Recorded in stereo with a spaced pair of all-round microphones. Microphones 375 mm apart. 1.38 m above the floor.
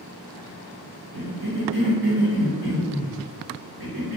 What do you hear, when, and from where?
1.1 s a cough: 70° right (ahead or behind), 1.3 m